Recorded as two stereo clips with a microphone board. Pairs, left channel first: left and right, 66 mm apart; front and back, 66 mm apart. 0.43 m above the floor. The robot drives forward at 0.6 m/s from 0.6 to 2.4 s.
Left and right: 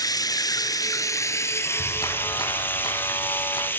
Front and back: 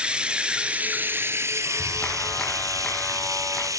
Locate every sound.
0.0 s running water: 105° left, 0.9 m; by 3.8 s 150° left, 1.6 m
1.6 s a clap: 65° left, 3.5 m; by 3.7 s 70° left, 3 m